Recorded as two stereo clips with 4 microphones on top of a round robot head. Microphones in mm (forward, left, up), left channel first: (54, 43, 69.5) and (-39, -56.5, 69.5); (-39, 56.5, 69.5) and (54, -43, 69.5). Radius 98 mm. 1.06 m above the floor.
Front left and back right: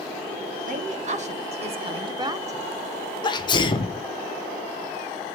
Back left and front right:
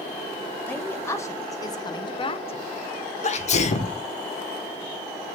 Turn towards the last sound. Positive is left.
turn(degrees=105)